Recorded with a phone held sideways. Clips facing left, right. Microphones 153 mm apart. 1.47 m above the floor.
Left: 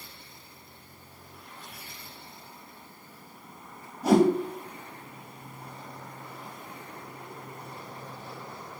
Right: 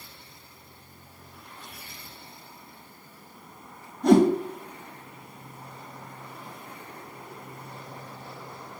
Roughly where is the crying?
I don't hear crying.